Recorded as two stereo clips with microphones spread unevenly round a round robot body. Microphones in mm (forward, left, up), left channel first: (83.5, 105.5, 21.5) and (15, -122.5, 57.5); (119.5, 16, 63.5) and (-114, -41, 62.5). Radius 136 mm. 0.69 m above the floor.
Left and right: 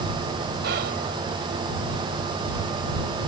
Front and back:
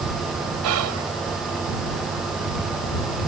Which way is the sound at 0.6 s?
155° right.